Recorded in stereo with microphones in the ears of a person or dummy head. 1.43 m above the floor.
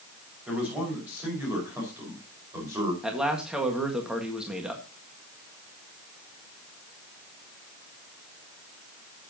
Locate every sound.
0.5 s a man speaking: 5° right (ahead or behind), 5.5 m; by 2.9 s 20° right (ahead or behind), 5 m
3.0 s a man speaking: 5° right (ahead or behind), 1.7 m